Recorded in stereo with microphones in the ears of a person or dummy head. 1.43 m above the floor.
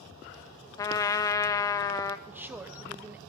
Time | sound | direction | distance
0.8 | a trumpet | 20° left (ahead or behind) | 0.7 m
2.3 | a woman speaking | 5° right (ahead or behind) | 0.6 m